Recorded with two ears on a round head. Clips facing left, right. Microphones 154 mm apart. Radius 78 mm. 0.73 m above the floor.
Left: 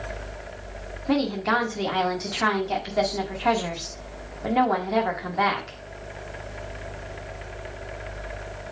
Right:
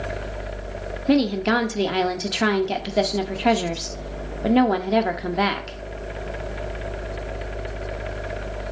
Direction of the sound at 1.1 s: 35° right (ahead or behind).